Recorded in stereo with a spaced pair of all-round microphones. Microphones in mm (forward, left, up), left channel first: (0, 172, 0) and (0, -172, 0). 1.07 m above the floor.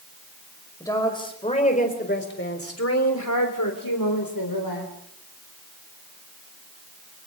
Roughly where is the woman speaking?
Centre.